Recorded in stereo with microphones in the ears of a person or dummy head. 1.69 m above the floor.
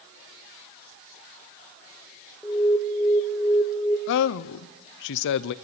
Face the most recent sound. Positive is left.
turn(degrees=60)  # may be behind; listen again after turning